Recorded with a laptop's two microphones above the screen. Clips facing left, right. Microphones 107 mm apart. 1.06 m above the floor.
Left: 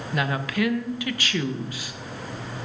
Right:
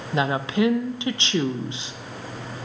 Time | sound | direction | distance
0.1 | a woman speaking | 25° right (ahead or behind) | 0.6 m